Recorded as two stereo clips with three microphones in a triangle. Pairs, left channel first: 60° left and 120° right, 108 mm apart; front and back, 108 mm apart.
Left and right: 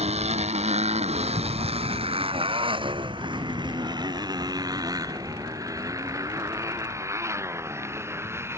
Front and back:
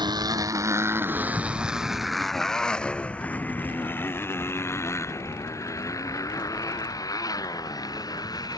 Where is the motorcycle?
135° right; by 8.6 s 55° right.